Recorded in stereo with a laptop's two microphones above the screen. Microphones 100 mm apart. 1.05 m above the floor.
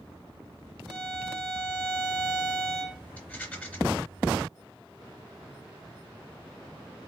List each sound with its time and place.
0.9 s a violin: centre (ahead or behind), 2.5 m
3.2 s a rattle: 15° left (ahead or behind), 2.5 m